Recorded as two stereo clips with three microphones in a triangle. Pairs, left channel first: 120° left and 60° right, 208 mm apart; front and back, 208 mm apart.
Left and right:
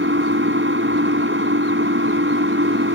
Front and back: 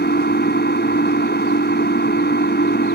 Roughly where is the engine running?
Ahead right.